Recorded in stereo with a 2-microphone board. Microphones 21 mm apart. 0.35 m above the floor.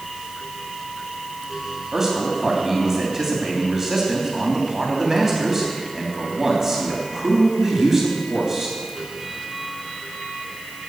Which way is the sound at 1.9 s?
20° right (ahead or behind).